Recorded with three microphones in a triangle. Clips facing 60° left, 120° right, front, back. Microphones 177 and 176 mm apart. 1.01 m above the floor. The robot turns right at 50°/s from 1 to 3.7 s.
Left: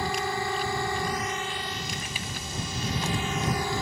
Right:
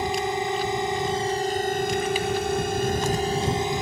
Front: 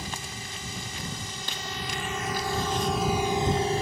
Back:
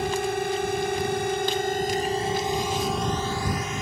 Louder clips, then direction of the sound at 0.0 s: Right 4 dB, back 14 dB; 170° left.